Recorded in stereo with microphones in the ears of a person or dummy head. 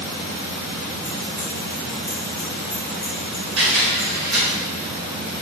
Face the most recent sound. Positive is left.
turn(degrees=-80)